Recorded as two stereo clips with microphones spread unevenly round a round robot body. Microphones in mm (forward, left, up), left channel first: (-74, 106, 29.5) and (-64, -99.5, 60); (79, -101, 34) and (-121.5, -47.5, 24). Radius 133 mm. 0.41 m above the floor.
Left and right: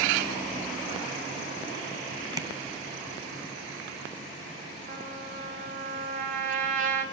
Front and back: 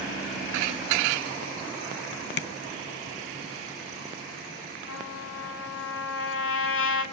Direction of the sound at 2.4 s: 10° right.